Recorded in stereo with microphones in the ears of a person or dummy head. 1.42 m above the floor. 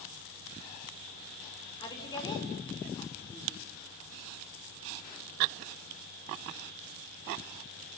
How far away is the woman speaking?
About 5 m.